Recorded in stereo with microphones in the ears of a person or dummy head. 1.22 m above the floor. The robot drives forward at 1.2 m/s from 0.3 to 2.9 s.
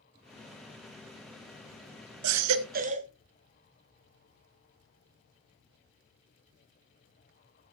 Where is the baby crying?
90° right, 0.6 m; by 3.1 s 35° right (ahead or behind), 1.0 m.